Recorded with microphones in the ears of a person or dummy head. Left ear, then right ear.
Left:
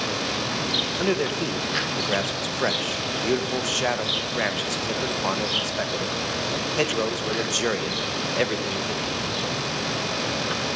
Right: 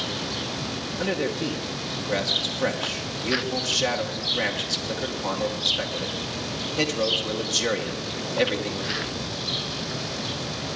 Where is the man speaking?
40° left (ahead or behind), 1.1 m.